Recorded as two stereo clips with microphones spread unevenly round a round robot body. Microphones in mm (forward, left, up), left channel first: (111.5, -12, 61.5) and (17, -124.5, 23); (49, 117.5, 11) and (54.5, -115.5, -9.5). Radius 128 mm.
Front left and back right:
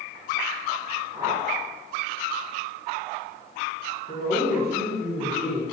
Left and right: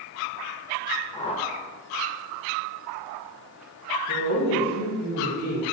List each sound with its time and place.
1.1 s a whoosh: 145° left, 0.8 m
4.1 s a woman speaking: 85° left, 3 m